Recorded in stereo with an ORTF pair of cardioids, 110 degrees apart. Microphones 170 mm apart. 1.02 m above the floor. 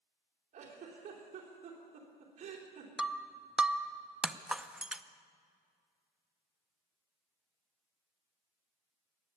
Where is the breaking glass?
5° right, 0.6 m.